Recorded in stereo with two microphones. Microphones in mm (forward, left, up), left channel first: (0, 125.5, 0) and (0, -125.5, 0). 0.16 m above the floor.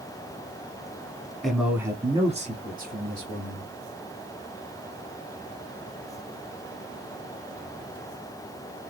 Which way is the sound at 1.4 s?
Centre (ahead or behind).